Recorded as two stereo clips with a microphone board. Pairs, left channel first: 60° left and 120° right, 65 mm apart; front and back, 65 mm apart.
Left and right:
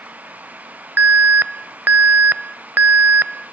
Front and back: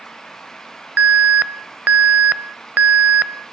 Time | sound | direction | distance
1.0 | an alarm | 140° right | 0.6 m